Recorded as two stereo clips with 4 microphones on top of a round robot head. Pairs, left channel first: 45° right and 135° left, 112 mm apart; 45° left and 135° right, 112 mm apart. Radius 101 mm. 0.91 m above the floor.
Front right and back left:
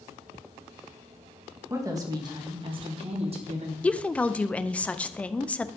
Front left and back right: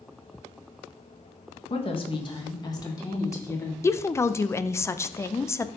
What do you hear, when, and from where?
1.7 s a woman speaking: 70° left, 1.4 m; by 3.7 s 115° left, 2 m
3.8 s a woman speaking: 15° left, 0.5 m